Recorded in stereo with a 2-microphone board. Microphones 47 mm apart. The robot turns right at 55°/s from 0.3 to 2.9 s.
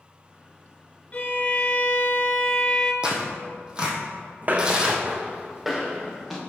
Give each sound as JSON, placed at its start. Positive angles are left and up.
{"t": 1.1, "sound": "a violin", "azimuth_deg": 55, "distance_m": 0.8}
{"t": 3.0, "sound": "tearing paper", "side_deg": -20, "distance_m": 1.2}
{"t": 4.4, "sound": "footsteps", "side_deg": -40, "distance_m": 0.5}